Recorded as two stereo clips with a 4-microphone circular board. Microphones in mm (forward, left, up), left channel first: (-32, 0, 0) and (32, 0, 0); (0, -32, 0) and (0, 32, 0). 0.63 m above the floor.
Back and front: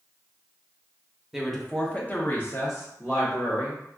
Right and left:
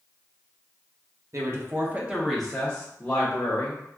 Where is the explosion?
I don't hear an explosion.